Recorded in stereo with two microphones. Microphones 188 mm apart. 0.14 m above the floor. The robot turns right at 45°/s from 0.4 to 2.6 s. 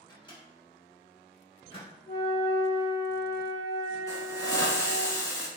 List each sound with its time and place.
0.1 s a microwave: 25° left (ahead or behind), 1.0 m; by 1.9 s 30° left (ahead or behind), 1.0 m
2.1 s a flute: 50° left (ahead or behind), 1.1 m; by 5.1 s 70° left (ahead or behind), 1.1 m
4.1 s a hiss: 20° left (ahead or behind), 0.6 m